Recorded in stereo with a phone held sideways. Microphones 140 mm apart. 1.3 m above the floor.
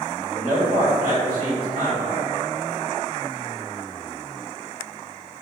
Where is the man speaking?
75° right (ahead or behind), 1.8 m.